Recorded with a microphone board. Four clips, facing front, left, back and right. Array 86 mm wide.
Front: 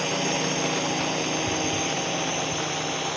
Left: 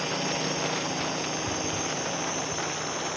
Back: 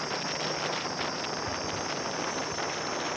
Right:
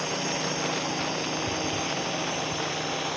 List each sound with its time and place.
0.0 s a drone: 5° left; by 3.2 s 20° right